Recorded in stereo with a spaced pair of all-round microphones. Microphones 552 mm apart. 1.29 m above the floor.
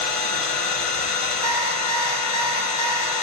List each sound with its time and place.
0.0 s an engine running: 70° left (ahead or behind), 0.9 m
1.4 s an alarm clock: 50° right (ahead or behind), 2.5 m